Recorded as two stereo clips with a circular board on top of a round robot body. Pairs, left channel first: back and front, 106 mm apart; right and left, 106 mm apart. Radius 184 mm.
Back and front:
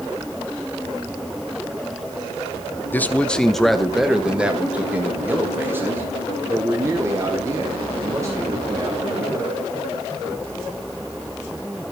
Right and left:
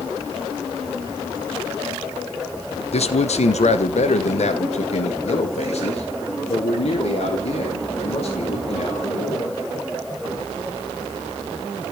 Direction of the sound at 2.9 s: 110° right.